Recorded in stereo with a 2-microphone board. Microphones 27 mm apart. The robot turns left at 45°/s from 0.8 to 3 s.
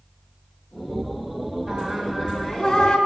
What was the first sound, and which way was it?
Singing, 145° right.